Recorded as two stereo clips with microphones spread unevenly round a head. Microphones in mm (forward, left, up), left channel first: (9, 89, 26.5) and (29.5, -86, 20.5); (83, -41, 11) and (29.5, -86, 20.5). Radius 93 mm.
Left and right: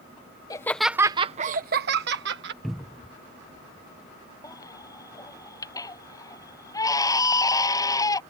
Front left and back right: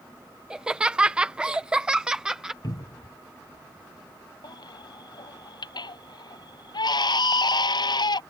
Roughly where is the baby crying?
Ahead left.